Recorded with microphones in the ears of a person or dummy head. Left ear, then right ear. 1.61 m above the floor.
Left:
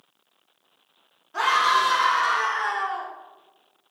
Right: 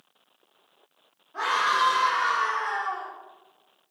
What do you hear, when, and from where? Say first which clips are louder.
1.3 s a scream: left 4 dB; 65° left (ahead or behind), 1.9 m; by 3.1 s 55° left (ahead or behind), 0.9 m